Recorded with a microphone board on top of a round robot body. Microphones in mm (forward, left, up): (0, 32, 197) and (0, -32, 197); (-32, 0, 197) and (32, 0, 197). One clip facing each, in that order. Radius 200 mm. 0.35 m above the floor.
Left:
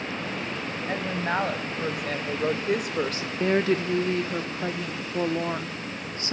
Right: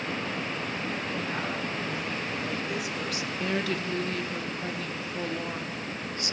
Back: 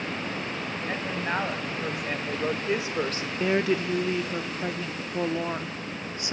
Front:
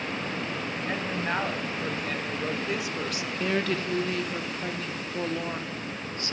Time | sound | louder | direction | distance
0.9 | a woman speaking | left 4 dB, even | 90° left | 4 m
3.4 | a woman speaking | left 8 dB, back 4 dB | 120° left | 1.4 m